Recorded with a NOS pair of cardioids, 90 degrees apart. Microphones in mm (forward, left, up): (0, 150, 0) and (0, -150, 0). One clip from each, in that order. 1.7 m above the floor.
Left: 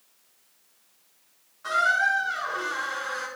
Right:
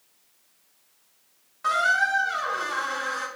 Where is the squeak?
60° right, 2.5 m.